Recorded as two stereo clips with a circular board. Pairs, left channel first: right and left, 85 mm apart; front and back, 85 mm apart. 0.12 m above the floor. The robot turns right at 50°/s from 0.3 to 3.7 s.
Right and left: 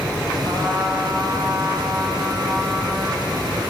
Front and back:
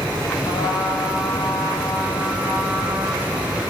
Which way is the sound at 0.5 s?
20° right.